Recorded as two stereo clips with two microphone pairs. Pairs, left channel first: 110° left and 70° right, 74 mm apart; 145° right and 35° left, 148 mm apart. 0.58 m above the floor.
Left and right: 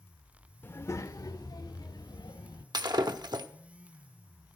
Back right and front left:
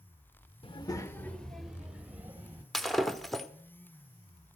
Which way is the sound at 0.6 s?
165° left.